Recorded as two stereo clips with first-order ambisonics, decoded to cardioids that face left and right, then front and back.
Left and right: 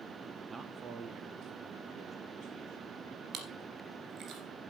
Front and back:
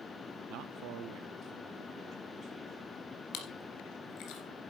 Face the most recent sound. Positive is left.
turn(degrees=-40)